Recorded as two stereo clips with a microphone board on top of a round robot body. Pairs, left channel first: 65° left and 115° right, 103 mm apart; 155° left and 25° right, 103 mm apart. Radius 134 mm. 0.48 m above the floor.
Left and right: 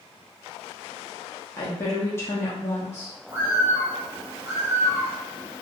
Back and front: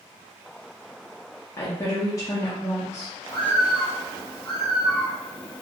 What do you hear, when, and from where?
1.6 s a woman speaking: 115° left, 1.0 m
3.3 s a bird: 170° right, 1.7 m